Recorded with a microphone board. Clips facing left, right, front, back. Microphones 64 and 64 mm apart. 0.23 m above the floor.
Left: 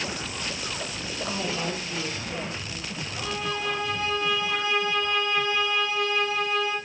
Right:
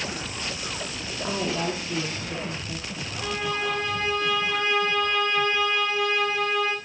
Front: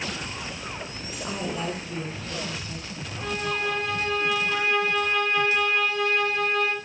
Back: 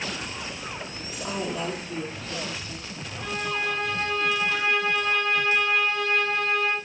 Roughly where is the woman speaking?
Right.